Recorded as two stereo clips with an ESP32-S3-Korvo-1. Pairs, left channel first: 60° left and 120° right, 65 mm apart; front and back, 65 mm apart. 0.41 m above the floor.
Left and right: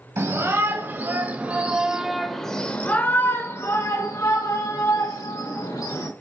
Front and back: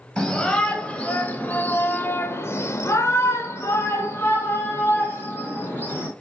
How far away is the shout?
About 2 m.